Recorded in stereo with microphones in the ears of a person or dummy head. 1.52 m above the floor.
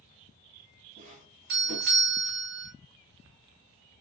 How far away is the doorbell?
About 3 m.